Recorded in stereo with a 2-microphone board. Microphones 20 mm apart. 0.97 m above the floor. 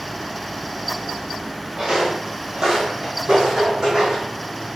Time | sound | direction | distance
1.8 | footsteps | 30° right (ahead or behind) | 1.6 m